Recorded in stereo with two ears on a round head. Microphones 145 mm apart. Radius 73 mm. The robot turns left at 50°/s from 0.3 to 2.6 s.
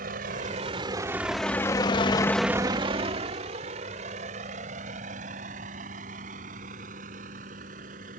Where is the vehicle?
60° right (ahead or behind); by 8.2 s 50° right (ahead or behind).